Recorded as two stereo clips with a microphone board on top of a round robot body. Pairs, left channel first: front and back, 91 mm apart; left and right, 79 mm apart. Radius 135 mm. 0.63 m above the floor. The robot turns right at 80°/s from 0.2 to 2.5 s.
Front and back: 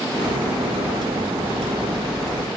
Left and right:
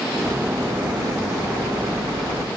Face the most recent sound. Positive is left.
No sound to turn to.